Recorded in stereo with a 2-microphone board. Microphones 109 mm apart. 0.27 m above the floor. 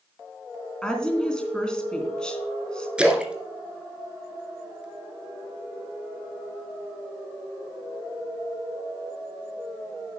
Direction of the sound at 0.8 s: 10° left (ahead or behind).